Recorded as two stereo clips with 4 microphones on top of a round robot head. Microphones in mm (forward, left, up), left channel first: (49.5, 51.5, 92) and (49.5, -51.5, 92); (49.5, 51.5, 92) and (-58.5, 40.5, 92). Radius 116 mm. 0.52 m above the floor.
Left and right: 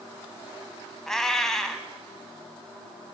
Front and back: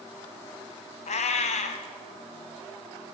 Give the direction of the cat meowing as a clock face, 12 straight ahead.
12 o'clock.